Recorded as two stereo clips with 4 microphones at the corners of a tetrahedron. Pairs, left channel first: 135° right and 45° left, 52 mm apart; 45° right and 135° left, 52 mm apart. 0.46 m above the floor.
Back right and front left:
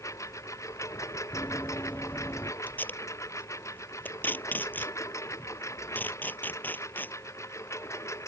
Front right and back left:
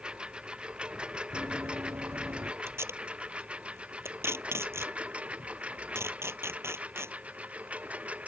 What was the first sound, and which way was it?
A lawn mower, 155° right.